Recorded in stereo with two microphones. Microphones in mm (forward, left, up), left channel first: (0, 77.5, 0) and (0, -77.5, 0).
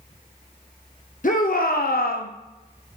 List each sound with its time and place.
1.2 s a shout: 60° left (ahead or behind), 0.7 m; by 2.3 s 65° left (ahead or behind), 0.7 m